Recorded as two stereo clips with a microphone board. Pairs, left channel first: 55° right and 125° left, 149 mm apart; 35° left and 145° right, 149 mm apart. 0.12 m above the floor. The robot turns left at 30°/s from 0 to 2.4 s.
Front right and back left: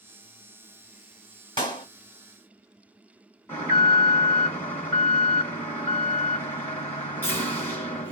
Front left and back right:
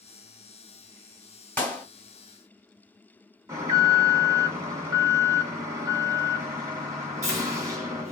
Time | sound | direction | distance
1.6 | a clap | 35° right | 1.5 m
3.5 | an alarm | 115° right | 1.5 m